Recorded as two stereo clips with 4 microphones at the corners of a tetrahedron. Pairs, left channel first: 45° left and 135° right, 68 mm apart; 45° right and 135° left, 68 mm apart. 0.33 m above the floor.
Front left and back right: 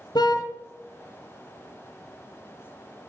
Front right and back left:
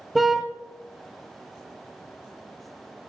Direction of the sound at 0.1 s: 45° left.